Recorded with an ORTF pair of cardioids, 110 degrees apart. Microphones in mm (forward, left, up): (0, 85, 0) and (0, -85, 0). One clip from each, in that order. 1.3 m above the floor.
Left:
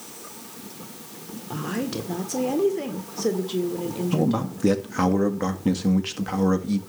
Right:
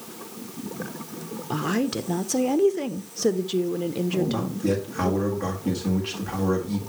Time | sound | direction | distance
1.5 | a woman speaking | 30° right | 1.0 m
4.1 | a man speaking | 55° left | 1.8 m